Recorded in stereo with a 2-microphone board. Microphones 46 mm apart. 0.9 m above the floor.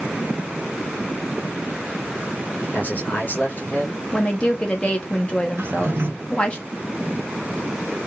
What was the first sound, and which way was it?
A man speaking, 40° left (ahead or behind).